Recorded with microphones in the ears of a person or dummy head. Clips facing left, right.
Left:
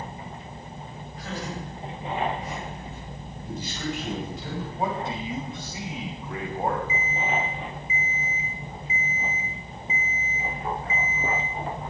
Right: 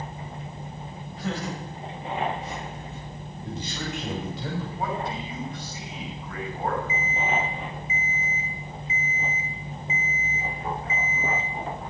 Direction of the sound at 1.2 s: 60° right (ahead or behind).